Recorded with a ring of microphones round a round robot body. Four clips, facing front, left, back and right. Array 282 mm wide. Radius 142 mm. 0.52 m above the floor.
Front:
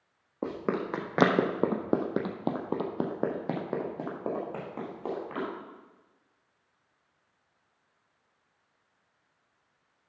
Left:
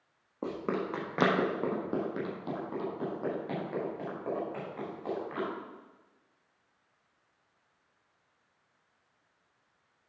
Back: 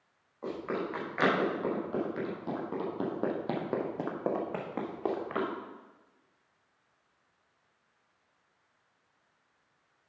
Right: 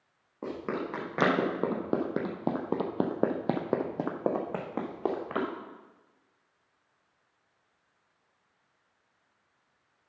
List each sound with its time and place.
0.4 s running footsteps: 10° left, 2 m; by 5.5 s 110° right, 2.5 m